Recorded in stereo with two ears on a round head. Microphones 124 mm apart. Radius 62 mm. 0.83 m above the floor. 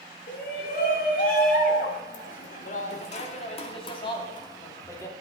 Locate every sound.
0.3 s a shout: 75° left (ahead or behind), 3 m; by 5.1 s 20° left (ahead or behind), 2.5 m